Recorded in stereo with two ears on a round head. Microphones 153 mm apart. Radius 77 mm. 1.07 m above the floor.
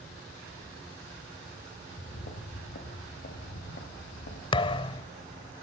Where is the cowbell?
I don't hear a cowbell.